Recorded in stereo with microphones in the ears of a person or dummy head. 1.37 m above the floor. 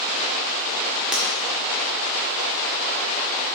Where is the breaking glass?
5° right (ahead or behind), 1.6 m.